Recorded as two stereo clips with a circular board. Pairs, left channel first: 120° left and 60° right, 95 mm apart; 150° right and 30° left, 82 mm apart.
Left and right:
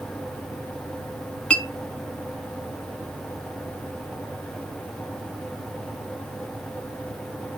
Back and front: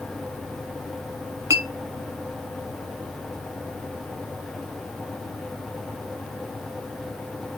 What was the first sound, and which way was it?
A clink, 50° left.